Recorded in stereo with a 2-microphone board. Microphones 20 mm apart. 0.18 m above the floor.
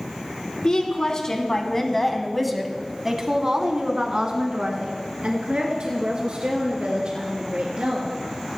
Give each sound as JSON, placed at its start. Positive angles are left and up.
{"t": 0.6, "sound": "a woman speaking", "side_deg": 45, "distance_m": 1.6}